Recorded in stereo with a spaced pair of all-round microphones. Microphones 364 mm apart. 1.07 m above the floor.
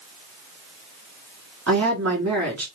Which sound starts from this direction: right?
A woman speaking, at 1.7 s.